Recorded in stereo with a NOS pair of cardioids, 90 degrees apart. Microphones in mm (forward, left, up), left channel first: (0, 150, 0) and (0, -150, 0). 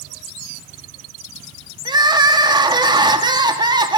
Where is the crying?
15° right, 1.3 m.